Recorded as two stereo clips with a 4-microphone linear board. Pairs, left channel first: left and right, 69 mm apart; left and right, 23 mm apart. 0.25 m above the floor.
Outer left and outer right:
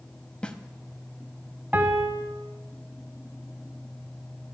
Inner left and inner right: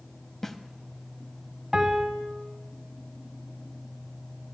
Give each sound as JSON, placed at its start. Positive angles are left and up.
{"t": 0.4, "sound": "a snare drum", "side_deg": 15, "distance_m": 0.7}
{"t": 1.7, "sound": "a piano", "side_deg": -25, "distance_m": 1.1}